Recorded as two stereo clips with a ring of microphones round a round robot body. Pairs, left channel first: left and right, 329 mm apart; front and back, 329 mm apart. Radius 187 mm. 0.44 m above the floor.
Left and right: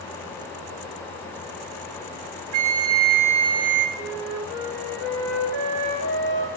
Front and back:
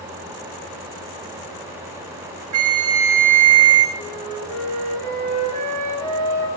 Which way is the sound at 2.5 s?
145° right.